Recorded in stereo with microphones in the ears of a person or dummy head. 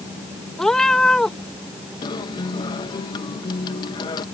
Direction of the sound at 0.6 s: Centre (ahead or behind).